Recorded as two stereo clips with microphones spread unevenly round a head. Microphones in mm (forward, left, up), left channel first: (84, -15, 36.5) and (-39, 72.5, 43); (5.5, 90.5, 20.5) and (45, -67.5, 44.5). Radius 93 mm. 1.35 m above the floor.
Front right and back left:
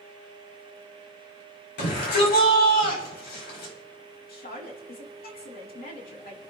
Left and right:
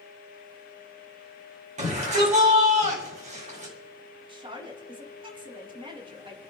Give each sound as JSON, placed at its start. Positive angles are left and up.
{"t": 1.8, "sound": "a shout", "azimuth_deg": -30, "distance_m": 8.5}
{"t": 4.3, "sound": "a woman speaking", "azimuth_deg": -15, "distance_m": 4.0}